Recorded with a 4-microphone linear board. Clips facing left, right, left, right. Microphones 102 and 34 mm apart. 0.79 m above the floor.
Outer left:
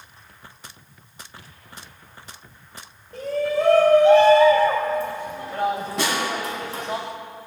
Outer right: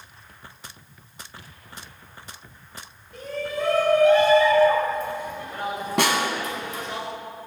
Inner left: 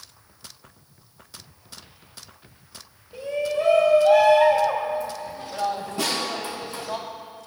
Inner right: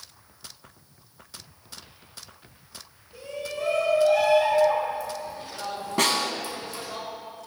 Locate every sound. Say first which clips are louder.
3.1 s a shout: outer left 7 dB, inner left 8 dB; 35° left (ahead or behind), 4.5 m
6.0 s a snare drum: outer right 5 dB, inner right 4 dB; 75° right (ahead or behind), 1.8 m